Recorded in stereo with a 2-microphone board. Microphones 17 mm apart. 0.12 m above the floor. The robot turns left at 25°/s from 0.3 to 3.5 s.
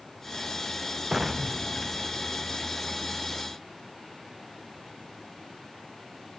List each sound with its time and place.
1.1 s an explosion: 15° right (ahead or behind); by 2.6 s 50° right (ahead or behind)